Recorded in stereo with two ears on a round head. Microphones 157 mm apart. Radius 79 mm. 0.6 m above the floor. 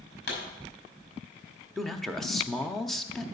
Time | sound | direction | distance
0.3 | a pop | 70° left (ahead or behind) | 5.5 m
1.8 | a man speaking | centre (ahead or behind) | 0.7 m